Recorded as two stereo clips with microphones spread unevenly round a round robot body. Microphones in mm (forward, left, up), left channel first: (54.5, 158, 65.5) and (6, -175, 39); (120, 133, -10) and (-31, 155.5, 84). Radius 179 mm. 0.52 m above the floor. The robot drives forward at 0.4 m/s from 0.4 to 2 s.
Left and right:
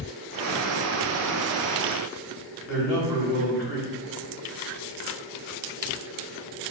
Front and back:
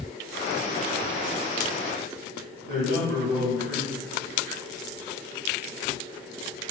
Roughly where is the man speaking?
Behind left.